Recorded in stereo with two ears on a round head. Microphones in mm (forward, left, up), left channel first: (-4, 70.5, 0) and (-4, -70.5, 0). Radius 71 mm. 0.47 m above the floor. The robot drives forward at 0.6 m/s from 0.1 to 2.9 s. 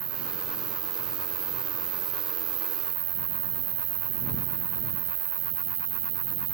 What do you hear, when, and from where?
0.0 s an insect: 40° right (ahead or behind); by 6.5 s 60° right (ahead or behind)